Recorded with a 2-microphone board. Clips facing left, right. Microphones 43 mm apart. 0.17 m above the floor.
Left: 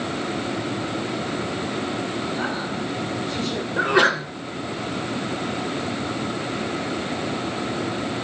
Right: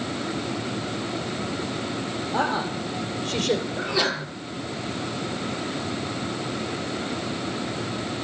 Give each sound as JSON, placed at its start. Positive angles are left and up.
{"t": 2.3, "sound": "a woman speaking", "side_deg": -70, "distance_m": 5.5}
{"t": 3.8, "sound": "a sneeze", "side_deg": 50, "distance_m": 1.9}